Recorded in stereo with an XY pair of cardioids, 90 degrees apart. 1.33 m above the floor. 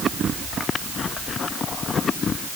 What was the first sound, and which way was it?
Only background noise.